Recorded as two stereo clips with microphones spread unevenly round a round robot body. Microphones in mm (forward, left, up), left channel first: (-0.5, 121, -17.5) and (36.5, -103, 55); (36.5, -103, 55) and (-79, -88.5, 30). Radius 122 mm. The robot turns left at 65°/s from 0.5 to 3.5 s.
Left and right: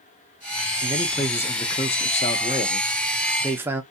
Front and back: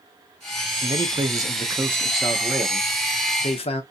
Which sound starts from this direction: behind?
A man speaking, at 0.8 s.